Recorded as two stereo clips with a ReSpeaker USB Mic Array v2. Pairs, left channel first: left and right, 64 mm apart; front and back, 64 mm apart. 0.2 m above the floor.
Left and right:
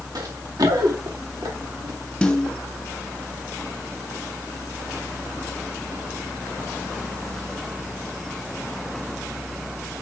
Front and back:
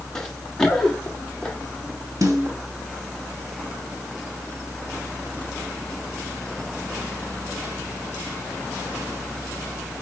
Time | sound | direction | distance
0.1 | running footsteps | 80° right | 1.5 m
2.2 | a snare drum | 165° left | 3 m